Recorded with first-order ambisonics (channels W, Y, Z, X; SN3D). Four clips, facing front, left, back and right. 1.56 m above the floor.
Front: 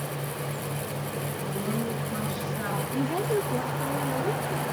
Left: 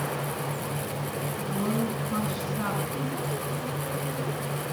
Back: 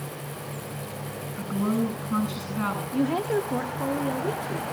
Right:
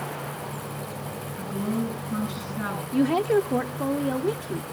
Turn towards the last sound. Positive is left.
turn(degrees=-105)